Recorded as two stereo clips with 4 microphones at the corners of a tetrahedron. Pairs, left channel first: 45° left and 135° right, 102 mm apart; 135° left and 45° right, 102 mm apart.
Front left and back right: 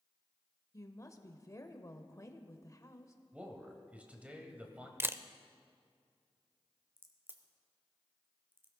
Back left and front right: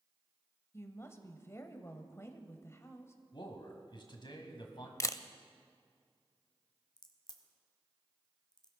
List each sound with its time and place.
0.7 s a woman speaking: 90° left, 1.1 m
3.3 s a man speaking: 150° left, 2 m
5.0 s a camera shutter: 170° left, 0.5 m
7.0 s a crack: 160° left, 1.3 m